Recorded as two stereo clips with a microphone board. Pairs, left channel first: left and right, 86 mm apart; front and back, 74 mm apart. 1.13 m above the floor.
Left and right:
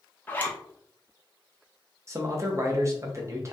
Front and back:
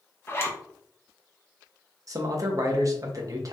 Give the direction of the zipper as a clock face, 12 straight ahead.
11 o'clock.